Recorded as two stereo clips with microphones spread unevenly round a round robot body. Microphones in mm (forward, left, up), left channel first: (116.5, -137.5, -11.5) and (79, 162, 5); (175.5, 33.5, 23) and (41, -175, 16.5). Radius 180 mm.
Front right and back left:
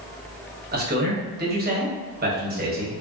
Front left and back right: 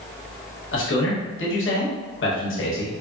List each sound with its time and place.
0.7 s a man speaking: 45° left, 1.1 m